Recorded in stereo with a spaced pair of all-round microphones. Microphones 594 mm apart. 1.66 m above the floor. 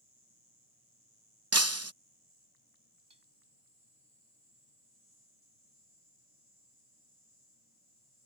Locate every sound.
0.0 s an insect: 75° right (ahead or behind)
1.5 s breaking glass: 25° right (ahead or behind)
3.1 s dishes clattering: 45° right (ahead or behind)